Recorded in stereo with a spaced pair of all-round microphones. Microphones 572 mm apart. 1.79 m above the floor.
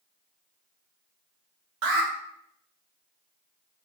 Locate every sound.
1.8 s an alarm: 85° right, 0.6 m